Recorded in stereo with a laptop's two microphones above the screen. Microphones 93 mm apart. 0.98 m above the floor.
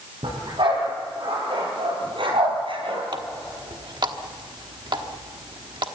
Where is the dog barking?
65° right (ahead or behind), 9 m.